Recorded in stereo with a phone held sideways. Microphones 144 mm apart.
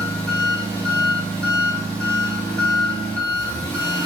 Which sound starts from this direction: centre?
An engine running, at 0.0 s.